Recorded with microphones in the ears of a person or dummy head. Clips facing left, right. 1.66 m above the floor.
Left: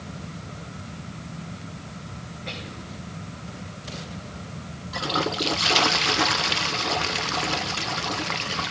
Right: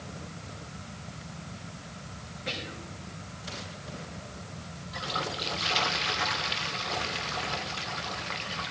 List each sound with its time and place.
2.5 s whispering: 15° right (ahead or behind), 6.5 m
4.9 s a toilet flushing: 70° left (ahead or behind), 1.0 m